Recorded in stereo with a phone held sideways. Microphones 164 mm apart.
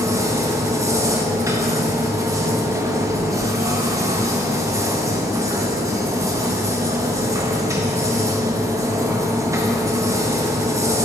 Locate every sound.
0.0 s a machine running: 20° right (ahead or behind), 0.7 m